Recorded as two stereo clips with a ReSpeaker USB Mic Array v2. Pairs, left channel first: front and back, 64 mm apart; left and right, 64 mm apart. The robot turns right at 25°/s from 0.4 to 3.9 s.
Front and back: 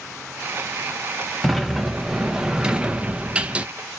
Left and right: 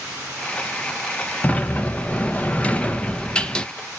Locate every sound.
1.4 s a sliding door: 90° left, 0.7 m; by 3.7 s 145° left, 0.7 m